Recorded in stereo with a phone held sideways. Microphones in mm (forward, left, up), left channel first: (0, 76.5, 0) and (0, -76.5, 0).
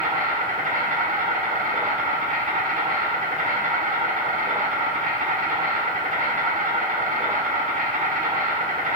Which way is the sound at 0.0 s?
60° right (ahead or behind).